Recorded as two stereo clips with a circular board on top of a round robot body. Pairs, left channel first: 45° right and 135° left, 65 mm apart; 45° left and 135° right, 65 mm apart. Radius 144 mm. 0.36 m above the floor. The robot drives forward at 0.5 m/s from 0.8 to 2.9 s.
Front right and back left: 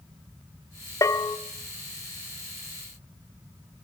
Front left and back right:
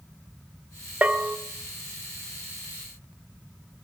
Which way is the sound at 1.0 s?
70° right.